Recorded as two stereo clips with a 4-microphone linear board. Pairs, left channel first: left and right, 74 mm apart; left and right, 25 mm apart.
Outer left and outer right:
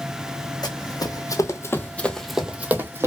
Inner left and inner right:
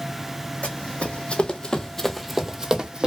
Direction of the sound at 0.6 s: 65° left (ahead or behind).